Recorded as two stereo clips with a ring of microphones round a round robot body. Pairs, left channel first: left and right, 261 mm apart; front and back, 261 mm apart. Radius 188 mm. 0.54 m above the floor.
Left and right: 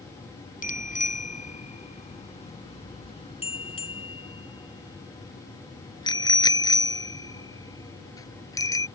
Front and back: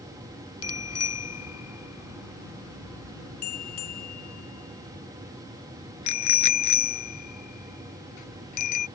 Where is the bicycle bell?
30° left; by 8.9 s 10° left.